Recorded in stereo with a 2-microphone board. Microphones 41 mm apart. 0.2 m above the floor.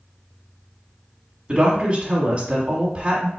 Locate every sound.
1.5 s a woman speaking: 30° right (ahead or behind), 1.5 m